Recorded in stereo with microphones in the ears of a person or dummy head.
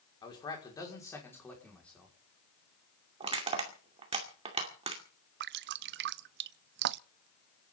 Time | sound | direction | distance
0.2 | a man speaking | 25° left (ahead or behind) | 5.5 m
3.2 | crushing | 35° right (ahead or behind) | 2.5 m
5.4 | dripping | 65° right (ahead or behind) | 0.5 m